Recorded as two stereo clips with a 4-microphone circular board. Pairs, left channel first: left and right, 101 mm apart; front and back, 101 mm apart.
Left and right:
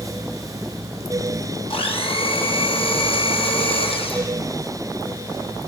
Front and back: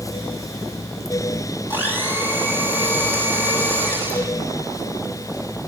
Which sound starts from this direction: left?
A blender, at 1.7 s.